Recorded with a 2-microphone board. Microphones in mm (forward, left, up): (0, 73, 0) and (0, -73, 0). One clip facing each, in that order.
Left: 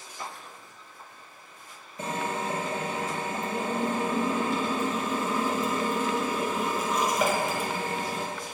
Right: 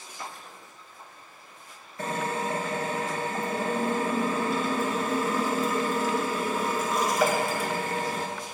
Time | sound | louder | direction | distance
2.0 | a drill | right 1 dB | 20° left (ahead or behind) | 1.6 m